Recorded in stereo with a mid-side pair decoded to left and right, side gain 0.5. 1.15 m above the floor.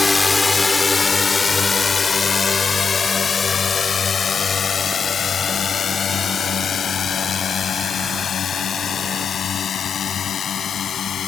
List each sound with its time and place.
0.0 s a drone: 20° left; by 11.3 s 50° left